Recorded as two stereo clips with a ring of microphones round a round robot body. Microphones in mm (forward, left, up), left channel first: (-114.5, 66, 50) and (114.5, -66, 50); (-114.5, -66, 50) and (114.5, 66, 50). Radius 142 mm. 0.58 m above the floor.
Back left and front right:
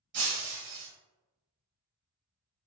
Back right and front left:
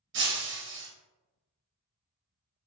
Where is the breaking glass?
15° right, 2 m.